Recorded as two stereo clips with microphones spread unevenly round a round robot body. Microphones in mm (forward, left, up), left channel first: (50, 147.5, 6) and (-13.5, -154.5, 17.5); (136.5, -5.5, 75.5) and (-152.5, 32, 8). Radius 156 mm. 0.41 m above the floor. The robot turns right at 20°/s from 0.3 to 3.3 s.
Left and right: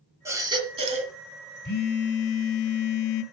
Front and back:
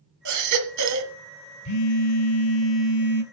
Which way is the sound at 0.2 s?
Straight behind.